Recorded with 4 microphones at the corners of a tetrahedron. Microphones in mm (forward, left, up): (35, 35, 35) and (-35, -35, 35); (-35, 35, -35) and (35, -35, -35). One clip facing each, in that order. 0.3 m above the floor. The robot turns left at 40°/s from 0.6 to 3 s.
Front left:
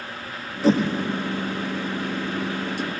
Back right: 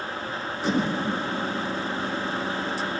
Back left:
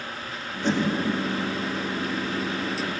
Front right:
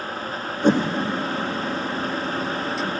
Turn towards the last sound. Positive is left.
turn(degrees=-100)